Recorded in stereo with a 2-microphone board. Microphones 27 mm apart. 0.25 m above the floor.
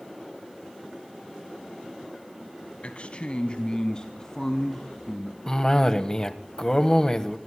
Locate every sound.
2.8 s a man speaking: 50° left (ahead or behind), 1.5 m; by 5.4 s 10° left (ahead or behind), 2.5 m
5.5 s a cough: 25° left (ahead or behind), 1.2 m